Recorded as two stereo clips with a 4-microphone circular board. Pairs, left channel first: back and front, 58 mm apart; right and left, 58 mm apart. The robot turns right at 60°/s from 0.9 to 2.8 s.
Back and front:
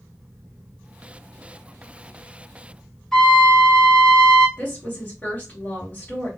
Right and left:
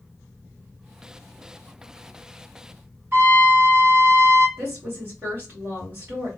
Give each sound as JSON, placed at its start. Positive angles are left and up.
{"t": 3.1, "sound": "a trumpet", "azimuth_deg": 100, "distance_m": 2.0}
{"t": 4.6, "sound": "a woman speaking", "azimuth_deg": 120, "distance_m": 2.5}